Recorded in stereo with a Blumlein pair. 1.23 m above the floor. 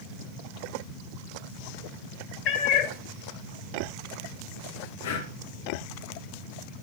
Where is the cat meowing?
35° left, 2.5 m.